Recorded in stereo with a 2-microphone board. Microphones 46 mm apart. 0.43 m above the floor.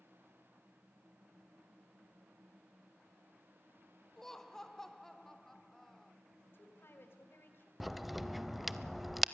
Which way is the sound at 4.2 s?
10° left (ahead or behind).